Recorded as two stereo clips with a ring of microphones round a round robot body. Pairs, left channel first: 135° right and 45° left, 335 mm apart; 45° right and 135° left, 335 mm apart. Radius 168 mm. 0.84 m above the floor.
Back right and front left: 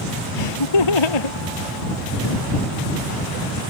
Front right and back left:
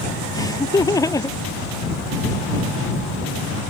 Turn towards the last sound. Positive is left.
turn(degrees=-125)